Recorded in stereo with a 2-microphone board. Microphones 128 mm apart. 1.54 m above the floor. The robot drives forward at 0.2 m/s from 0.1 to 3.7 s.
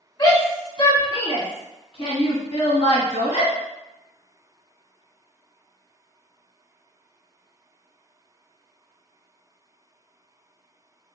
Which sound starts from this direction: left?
A shout, at 0.2 s.